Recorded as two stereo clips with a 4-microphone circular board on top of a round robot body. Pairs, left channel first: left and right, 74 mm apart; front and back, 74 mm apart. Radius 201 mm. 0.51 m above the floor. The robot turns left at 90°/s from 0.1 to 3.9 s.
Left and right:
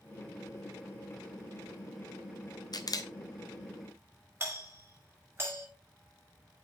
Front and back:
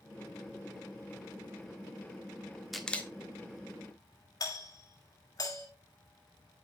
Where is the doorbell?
30° right, 5 m.